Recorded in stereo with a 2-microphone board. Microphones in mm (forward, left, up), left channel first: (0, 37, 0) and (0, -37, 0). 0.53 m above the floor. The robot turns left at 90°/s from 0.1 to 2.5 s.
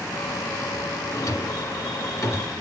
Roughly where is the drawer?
Left.